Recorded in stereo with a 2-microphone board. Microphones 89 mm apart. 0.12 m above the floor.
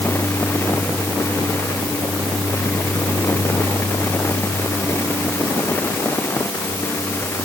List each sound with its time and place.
Only background noise.